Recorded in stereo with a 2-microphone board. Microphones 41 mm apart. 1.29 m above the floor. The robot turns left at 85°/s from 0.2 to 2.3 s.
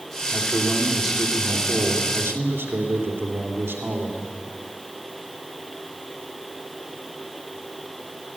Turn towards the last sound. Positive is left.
turn(degrees=-110)